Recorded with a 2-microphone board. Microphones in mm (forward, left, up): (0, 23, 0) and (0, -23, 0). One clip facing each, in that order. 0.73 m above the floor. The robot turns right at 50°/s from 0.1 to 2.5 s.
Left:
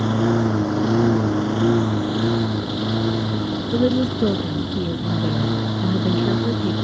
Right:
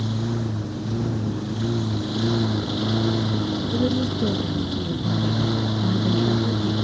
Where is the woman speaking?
30° left (ahead or behind).